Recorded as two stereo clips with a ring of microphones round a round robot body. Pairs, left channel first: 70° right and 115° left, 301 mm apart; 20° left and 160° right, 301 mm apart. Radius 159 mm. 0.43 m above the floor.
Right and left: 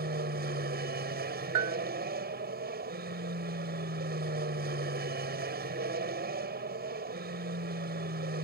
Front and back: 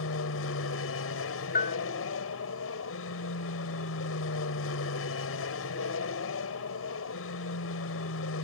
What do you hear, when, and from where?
0.0 s an aircraft: 60° left
1.6 s a bell: 85° left